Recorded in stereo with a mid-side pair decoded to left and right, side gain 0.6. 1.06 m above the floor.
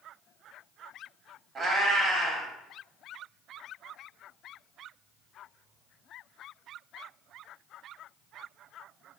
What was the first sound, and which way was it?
A cat meowing, 40° right.